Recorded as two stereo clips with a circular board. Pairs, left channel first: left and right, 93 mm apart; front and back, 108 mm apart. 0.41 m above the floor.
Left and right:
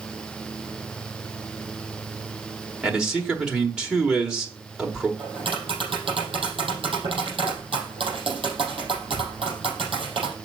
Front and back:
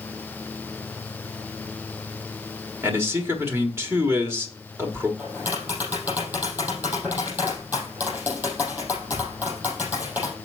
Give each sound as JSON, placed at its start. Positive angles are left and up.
{"t": 2.8, "sound": "a man speaking", "azimuth_deg": -160, "distance_m": 1.3}
{"t": 5.2, "sound": "tapping", "azimuth_deg": -110, "distance_m": 5.0}